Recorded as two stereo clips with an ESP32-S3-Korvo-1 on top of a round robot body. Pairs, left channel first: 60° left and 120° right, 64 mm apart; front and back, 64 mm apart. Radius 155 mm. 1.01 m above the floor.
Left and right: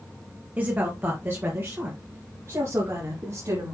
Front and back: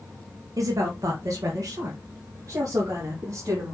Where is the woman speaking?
Straight behind, 1.4 m; by 3.7 s 155° right, 3 m.